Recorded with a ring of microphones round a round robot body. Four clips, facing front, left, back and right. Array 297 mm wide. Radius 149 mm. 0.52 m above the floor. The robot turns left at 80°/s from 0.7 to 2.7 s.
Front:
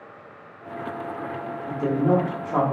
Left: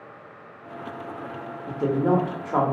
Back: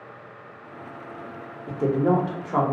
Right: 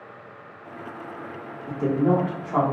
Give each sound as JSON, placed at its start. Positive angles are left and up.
{"t": 1.7, "sound": "a woman speaking", "azimuth_deg": 155, "distance_m": 0.6}